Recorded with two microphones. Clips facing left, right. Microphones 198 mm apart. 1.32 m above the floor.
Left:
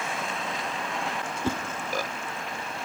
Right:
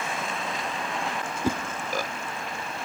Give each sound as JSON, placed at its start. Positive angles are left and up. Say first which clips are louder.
{"t": 1.4, "sound": "a whoosh", "louder": "right 2 dB", "side_deg": -10, "distance_m": 0.6}